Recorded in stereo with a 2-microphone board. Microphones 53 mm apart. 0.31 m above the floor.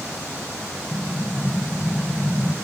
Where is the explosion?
80° left, 0.8 m.